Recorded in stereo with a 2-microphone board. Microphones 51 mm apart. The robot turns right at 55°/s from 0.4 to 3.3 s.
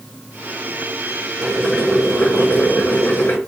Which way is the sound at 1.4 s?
10° right.